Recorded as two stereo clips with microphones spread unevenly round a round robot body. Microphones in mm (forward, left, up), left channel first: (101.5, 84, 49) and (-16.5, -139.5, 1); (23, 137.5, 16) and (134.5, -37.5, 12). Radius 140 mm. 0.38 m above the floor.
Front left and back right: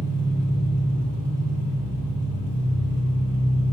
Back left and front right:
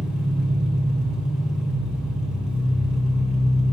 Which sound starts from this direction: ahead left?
An engine running, at 0.0 s.